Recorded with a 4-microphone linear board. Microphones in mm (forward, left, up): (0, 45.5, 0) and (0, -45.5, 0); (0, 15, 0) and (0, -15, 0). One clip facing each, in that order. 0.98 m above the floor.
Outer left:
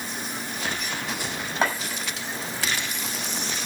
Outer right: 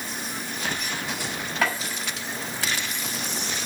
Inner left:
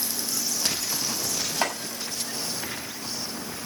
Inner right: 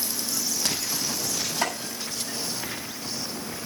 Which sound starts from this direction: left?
Chopping, at 1.6 s.